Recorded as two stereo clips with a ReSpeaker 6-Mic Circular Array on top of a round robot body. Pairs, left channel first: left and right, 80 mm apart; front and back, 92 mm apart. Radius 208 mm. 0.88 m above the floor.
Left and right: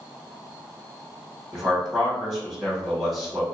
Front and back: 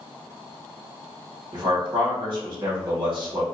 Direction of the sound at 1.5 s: 175° left.